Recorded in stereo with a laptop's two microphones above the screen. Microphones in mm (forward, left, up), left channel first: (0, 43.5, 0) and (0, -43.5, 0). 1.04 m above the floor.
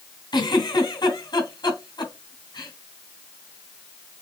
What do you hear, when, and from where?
0.3 s a giggle: 55° left (ahead or behind), 1.7 m